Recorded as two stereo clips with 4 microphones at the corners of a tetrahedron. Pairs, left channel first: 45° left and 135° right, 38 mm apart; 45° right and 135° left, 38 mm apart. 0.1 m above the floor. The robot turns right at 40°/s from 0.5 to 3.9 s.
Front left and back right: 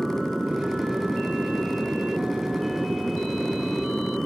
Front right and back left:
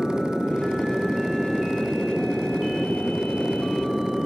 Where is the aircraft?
Straight behind; by 4.3 s 40° right.